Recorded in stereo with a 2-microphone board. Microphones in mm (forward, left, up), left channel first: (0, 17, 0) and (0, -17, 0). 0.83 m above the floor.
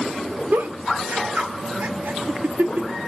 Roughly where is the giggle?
Right.